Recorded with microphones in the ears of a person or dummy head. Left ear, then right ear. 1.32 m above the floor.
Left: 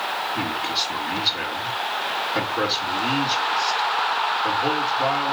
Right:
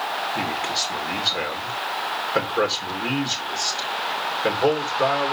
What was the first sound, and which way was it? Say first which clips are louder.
A man speaking: even; 30° right (ahead or behind).